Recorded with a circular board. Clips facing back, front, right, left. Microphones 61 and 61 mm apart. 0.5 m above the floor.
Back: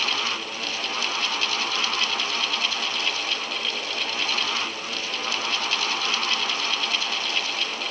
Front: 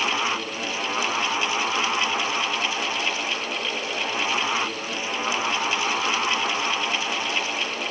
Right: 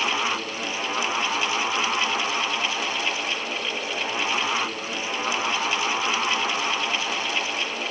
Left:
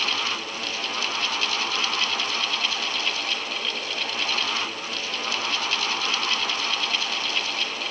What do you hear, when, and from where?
Only background noise.